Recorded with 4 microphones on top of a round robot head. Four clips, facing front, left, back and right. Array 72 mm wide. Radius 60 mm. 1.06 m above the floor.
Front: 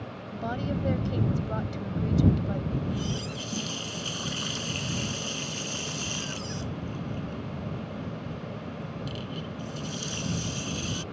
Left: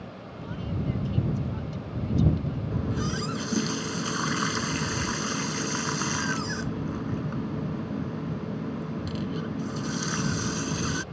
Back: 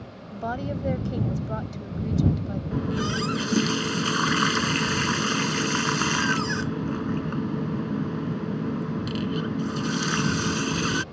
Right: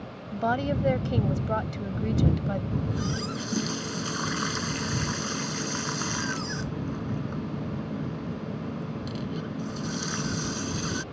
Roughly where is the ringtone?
No ringtone in this recording.